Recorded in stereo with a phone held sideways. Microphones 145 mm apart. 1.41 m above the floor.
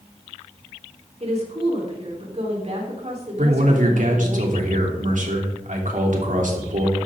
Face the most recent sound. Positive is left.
turn(degrees=-70)  # may be behind; listen again after turning